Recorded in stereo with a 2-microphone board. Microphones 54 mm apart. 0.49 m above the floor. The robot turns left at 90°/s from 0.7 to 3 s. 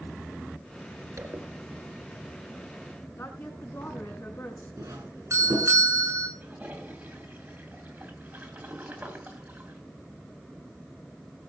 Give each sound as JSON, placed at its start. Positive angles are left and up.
{"t": 1.2, "sound": "a zipper", "side_deg": -65, "distance_m": 3.0}
{"t": 3.2, "sound": "a woman speaking", "side_deg": 45, "distance_m": 5.5}
{"t": 4.8, "sound": "a doorbell", "side_deg": -65, "distance_m": 6.5}
{"t": 6.4, "sound": "a toilet flushing", "side_deg": -35, "distance_m": 3.0}